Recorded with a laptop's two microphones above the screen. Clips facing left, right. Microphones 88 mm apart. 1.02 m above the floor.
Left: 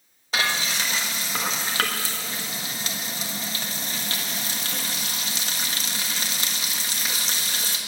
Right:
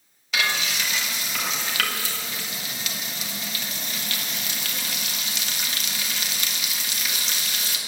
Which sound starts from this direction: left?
Frying, at 0.3 s.